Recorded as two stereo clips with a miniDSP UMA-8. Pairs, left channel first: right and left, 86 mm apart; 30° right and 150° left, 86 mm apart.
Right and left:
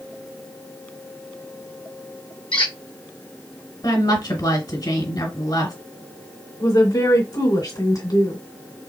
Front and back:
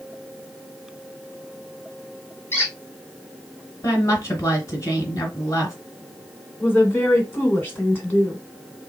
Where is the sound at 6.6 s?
90° right, 2 m.